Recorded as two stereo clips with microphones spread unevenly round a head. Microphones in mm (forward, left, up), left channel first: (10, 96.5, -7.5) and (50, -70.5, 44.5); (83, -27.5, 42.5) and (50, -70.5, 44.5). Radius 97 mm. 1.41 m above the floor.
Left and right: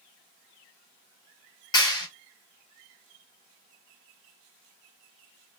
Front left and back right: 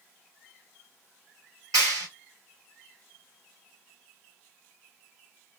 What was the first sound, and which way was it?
A clap, straight behind.